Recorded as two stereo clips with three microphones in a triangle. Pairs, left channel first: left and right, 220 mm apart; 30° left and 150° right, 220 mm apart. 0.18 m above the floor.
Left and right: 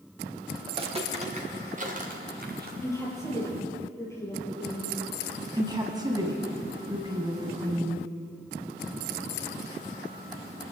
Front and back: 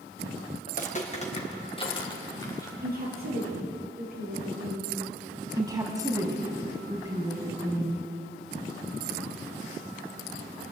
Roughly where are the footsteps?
Ahead right.